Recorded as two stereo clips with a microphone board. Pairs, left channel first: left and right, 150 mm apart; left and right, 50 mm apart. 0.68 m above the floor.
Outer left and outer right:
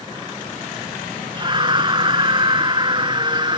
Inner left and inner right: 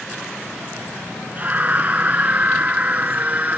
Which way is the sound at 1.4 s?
35° right (ahead or behind).